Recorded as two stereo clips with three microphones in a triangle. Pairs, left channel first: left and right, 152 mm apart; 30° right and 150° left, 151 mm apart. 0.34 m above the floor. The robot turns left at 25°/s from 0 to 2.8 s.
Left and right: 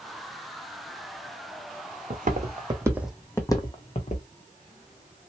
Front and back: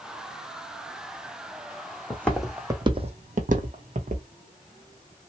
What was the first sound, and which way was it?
Footsteps, 105° right.